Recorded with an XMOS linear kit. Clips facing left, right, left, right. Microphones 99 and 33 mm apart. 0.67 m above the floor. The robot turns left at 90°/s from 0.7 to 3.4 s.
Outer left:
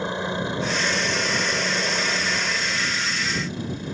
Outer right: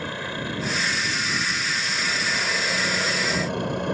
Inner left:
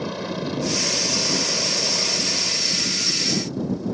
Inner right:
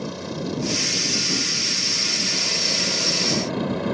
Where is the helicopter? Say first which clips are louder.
Outer left 4 dB, inner left 2 dB; 155° left; by 3.9 s 85° right.